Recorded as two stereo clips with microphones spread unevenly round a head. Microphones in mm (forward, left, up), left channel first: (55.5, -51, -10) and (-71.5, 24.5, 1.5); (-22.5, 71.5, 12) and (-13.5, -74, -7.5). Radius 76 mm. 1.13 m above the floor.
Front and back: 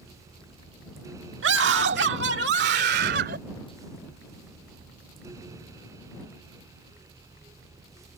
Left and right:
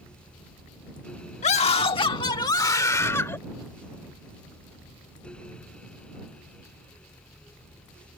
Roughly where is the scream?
Behind left.